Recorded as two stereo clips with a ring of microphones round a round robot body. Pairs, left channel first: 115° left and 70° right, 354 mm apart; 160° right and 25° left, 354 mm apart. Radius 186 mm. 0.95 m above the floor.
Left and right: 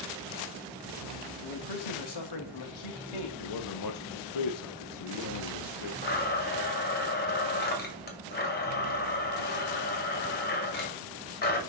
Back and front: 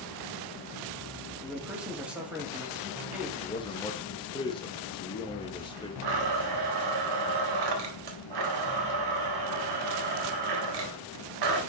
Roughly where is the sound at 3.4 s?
Behind left.